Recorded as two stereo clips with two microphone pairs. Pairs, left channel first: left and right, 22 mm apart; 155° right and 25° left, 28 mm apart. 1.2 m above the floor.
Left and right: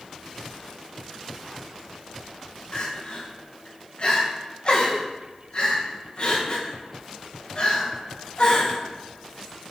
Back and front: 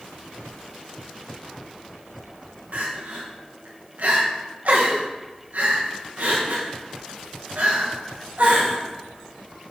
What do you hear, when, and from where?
2.7 s crying: 50° left, 0.8 m